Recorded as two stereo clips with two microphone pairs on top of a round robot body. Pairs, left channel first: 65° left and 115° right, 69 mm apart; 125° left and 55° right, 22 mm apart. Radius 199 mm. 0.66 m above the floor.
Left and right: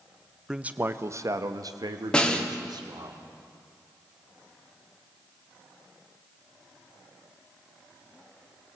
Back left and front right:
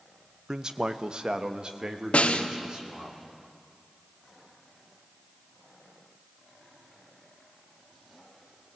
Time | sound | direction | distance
0.5 | a man speaking | 50° right | 1.0 m
2.1 | a snare drum | 140° left | 1.7 m